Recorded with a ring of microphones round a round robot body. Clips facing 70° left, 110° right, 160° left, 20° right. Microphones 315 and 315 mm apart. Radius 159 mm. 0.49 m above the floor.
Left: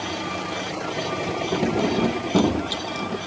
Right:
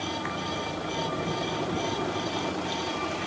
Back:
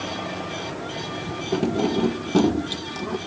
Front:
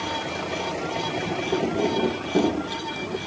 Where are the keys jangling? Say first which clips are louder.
Left 8 dB, back 2 dB; 90° left.